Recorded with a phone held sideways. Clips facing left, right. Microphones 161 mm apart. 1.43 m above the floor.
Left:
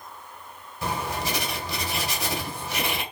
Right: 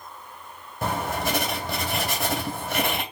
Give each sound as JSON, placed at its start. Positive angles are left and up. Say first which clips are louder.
{"t": 0.8, "sound": "writing", "louder": "right 3 dB", "side_deg": -55, "distance_m": 3.0}